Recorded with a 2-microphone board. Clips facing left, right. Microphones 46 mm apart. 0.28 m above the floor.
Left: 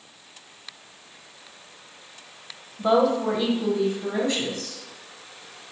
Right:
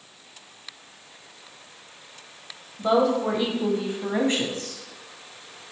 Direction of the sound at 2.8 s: 10° left (ahead or behind).